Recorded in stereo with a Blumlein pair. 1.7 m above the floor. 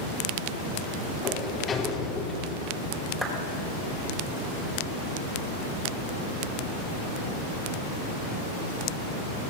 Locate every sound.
1.2 s a sliding door: 20° left, 4 m
3.2 s a clap: 10° right, 6 m